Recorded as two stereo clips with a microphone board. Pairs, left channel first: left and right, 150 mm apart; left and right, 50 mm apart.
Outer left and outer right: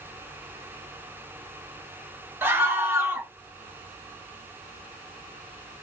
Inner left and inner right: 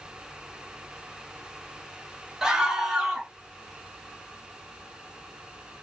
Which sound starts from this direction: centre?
A scream, at 2.4 s.